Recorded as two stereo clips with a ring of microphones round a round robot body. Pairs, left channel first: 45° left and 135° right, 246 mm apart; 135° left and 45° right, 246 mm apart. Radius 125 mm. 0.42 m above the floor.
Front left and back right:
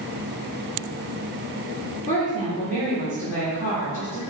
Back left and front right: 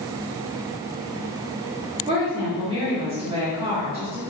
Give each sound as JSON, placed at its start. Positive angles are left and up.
{"t": 2.1, "sound": "a woman speaking", "azimuth_deg": -15, "distance_m": 1.4}